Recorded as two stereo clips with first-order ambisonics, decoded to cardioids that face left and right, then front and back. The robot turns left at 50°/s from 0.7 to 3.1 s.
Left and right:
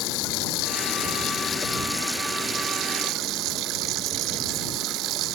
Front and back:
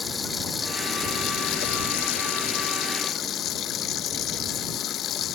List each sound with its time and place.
0.0 s running water: 70° left; by 5.4 s 50° right